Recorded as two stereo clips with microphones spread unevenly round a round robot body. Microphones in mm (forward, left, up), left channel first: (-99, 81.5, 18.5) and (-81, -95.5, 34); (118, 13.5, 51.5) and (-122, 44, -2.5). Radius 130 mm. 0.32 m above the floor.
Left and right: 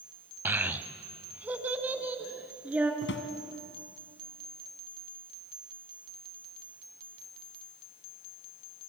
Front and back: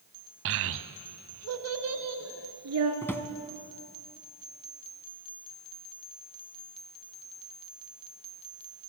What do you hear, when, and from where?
0.5 s a child speaking: 165° right, 1.1 m
3.0 s a drawer: 80° left, 1.2 m